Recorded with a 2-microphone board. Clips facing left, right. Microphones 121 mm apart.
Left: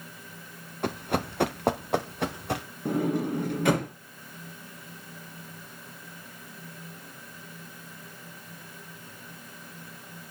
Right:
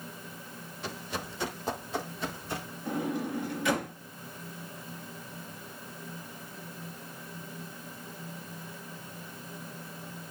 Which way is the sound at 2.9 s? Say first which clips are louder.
Left 5 dB; 55° left (ahead or behind).